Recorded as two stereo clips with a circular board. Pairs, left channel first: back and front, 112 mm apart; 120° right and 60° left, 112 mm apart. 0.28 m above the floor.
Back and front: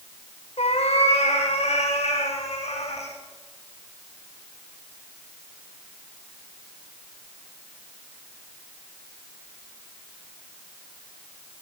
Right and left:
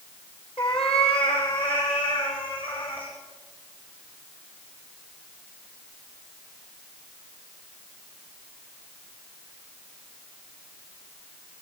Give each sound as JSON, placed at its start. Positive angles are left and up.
{"t": 0.6, "sound": "a cat meowing", "azimuth_deg": -155, "distance_m": 6.5}